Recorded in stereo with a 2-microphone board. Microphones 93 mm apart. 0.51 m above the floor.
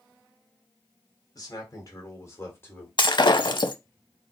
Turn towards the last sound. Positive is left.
turn(degrees=55)  # may be behind; listen again after turning